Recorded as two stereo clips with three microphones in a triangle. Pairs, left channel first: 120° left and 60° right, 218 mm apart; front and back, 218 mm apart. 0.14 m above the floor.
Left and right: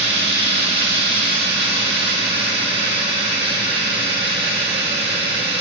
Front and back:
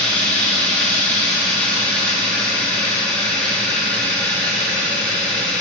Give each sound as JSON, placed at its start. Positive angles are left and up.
{"t": 0.0, "sound": "running water", "azimuth_deg": -85, "distance_m": 2.5}